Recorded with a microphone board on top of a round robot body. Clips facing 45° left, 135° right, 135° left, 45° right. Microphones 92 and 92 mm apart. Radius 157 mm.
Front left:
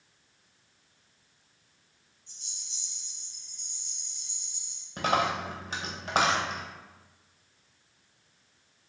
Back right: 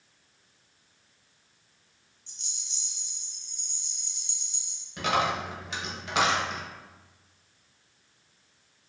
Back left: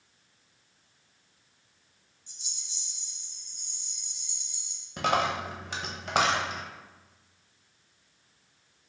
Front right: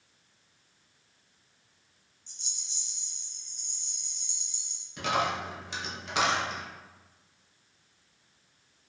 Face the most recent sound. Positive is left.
turn(degrees=95)